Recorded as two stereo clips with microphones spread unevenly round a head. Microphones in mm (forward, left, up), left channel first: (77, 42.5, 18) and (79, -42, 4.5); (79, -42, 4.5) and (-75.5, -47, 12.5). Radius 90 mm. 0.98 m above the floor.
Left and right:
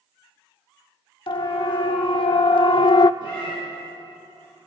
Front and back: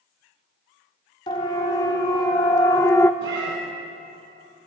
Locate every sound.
1.3 s a siren: 70° left, 2.5 m
3.2 s a cat meowing: 155° left, 4 m